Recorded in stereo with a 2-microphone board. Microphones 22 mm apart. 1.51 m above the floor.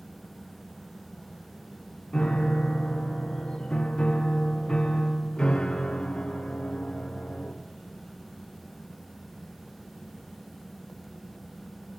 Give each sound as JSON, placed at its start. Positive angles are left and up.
{"t": 2.1, "sound": "a piano", "side_deg": 40, "distance_m": 0.6}